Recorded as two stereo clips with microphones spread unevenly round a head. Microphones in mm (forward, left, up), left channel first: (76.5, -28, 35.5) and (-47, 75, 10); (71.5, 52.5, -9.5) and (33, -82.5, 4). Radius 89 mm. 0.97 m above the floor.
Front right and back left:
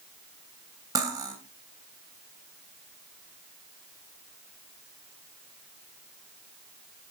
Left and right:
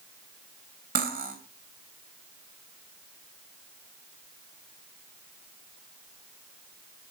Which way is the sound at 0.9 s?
150° right.